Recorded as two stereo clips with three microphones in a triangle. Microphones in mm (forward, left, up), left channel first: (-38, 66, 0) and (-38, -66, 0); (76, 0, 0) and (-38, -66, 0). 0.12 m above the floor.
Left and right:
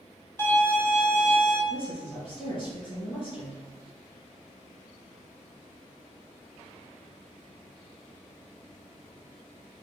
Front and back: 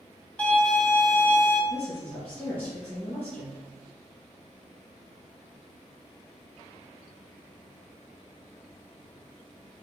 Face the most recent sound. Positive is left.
turn(degrees=100)